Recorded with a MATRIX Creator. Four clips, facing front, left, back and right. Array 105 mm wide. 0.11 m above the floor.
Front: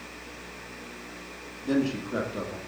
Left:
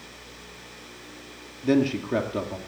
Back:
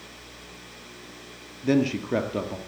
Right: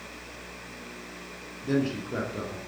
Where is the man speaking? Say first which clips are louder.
Left 5 dB, back 4 dB; 145° left, 2 m.